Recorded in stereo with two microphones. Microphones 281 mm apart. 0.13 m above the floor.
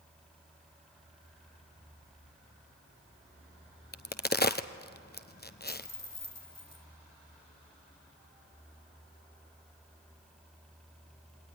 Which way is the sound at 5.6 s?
65° left (ahead or behind).